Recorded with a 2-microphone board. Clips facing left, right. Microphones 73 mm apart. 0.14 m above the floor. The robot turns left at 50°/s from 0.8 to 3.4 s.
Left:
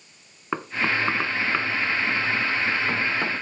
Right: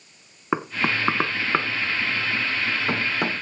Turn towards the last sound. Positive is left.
turn(degrees=-10)  # may be behind; listen again after turning